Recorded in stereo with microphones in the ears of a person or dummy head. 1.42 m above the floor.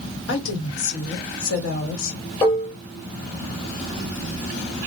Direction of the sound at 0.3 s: 85° left.